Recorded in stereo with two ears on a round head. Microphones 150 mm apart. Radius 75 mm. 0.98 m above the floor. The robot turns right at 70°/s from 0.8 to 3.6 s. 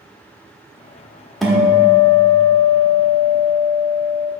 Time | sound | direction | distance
1.4 | a guitar | straight ahead | 1.2 m